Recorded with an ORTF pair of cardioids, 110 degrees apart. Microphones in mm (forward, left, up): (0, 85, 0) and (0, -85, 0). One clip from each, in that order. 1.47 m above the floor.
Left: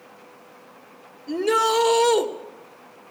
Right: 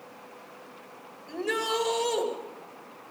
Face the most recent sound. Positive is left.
turn(degrees=60)